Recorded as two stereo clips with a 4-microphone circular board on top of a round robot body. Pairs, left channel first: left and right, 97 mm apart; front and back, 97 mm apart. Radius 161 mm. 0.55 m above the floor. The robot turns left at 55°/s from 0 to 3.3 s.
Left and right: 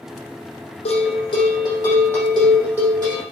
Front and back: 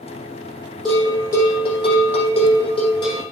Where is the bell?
85° left, 4.5 m; by 3.2 s 45° right, 4.5 m.